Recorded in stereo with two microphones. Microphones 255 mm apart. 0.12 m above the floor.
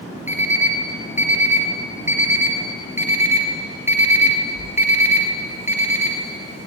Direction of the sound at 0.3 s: 10° right (ahead or behind).